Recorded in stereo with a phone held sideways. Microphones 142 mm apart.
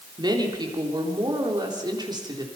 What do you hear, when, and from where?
0.2 s a woman speaking: 30° right (ahead or behind), 3.5 m